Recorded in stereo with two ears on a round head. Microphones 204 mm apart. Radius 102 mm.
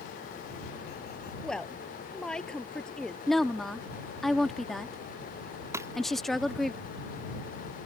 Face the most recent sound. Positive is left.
turn(degrees=-10)  # may be behind; listen again after turning